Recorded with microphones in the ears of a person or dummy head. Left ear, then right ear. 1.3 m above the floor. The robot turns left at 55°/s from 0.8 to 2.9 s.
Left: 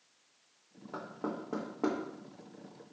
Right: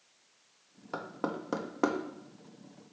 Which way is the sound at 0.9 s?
40° right (ahead or behind).